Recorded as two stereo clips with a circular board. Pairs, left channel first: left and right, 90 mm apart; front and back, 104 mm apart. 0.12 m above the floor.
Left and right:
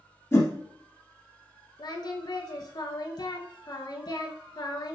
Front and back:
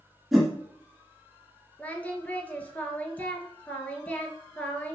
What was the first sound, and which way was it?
A whoosh, 95° left.